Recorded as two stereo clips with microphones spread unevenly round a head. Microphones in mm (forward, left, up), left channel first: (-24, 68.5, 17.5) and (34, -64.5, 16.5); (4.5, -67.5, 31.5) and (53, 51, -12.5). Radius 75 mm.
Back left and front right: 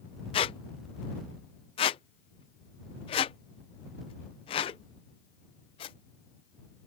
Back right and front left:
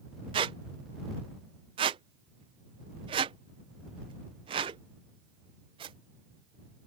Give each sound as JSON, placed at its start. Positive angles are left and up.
{"t": 0.3, "sound": "a squeak", "azimuth_deg": 130}